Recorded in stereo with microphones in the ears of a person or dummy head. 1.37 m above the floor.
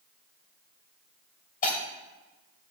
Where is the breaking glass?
45° left (ahead or behind), 1.9 m.